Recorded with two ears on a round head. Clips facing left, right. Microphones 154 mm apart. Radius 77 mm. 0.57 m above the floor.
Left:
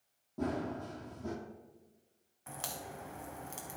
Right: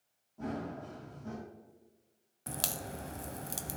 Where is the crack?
45° right (ahead or behind), 0.5 m.